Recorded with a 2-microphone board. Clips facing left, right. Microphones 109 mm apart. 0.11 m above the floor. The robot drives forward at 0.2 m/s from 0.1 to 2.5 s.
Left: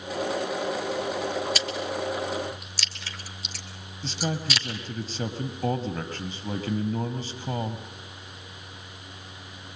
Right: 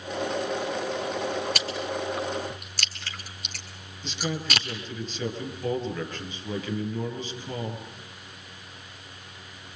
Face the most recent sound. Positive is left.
turn(degrees=35)  # may be behind; listen again after turning